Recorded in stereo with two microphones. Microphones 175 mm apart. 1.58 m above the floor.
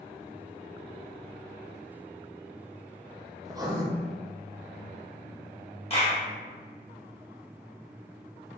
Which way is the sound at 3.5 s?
20° right (ahead or behind).